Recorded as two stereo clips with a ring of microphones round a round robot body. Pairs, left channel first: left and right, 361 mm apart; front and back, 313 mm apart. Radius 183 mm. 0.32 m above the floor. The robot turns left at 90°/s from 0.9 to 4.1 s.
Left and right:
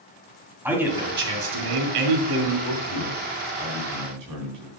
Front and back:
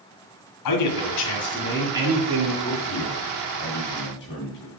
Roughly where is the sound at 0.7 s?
Ahead.